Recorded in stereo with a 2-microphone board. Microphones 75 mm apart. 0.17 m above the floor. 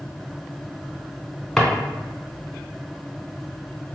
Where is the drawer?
5° left (ahead or behind), 0.7 m.